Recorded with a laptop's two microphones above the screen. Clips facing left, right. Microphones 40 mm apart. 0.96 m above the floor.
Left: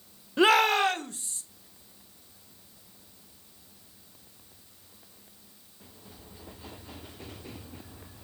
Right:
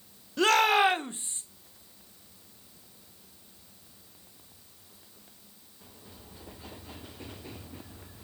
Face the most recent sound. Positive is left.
turn(degrees=-30)  # may be behind; listen again after turning